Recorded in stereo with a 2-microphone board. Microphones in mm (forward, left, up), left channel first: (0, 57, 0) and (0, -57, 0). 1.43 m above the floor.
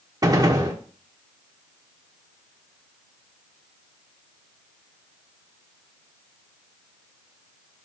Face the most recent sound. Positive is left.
turn(degrees=-30)  # may be behind; listen again after turning